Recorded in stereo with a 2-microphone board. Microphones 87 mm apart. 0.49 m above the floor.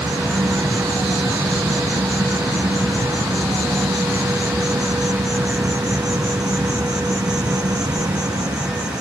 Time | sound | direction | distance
0.0 | an insect | 45° right (ahead or behind) | ?